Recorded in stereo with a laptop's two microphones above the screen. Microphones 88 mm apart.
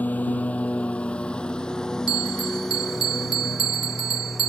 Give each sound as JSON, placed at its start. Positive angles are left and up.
{"t": 0.0, "sound": "a lawn mower", "side_deg": 20}
{"t": 2.1, "sound": "a bell", "side_deg": -75}